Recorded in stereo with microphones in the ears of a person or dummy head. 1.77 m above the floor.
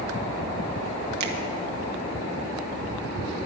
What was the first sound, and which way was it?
A finger snap, 50° right (ahead or behind).